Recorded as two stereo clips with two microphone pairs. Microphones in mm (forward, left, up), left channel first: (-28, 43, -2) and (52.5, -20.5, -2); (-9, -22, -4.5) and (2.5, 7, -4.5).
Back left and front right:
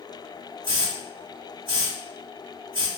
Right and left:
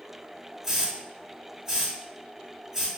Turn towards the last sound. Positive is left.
turn(degrees=-5)